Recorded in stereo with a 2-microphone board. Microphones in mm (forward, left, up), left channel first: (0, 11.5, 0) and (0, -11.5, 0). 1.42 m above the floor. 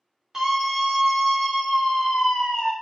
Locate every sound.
0.3 s a scream: 20° right (ahead or behind), 0.8 m; by 2.7 s 55° left (ahead or behind), 1.1 m